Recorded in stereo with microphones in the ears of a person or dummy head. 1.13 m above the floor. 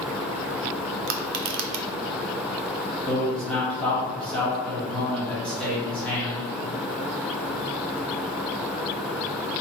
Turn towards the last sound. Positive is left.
turn(degrees=5)  # may be behind; listen again after turning